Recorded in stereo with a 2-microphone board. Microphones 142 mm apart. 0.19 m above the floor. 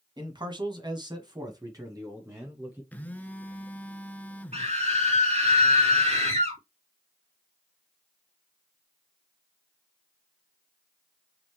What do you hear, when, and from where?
0.2 s a man speaking: 35° right (ahead or behind), 1.5 m; by 2.8 s 20° right (ahead or behind), 2.5 m
2.9 s a phone buzzing: 10° left (ahead or behind), 0.6 m
4.5 s a scream: 55° right (ahead or behind), 3.5 m